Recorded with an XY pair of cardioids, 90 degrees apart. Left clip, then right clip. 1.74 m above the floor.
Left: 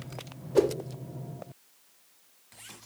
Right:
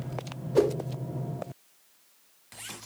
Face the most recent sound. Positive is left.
turn(degrees=0)